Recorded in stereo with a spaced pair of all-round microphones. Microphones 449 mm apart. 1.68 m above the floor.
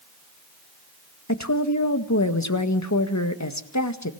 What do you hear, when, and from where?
1.3 s a woman speaking: 35° left (ahead or behind), 1.8 m